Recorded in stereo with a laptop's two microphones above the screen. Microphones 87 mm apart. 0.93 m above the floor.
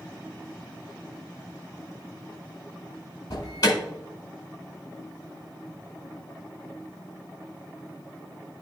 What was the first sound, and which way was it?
An alarm, 55° left (ahead or behind).